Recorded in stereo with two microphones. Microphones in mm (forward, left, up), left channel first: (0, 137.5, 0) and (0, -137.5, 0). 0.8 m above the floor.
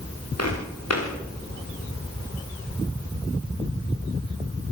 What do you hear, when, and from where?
0.4 s footsteps: 65° left (ahead or behind), 8.5 m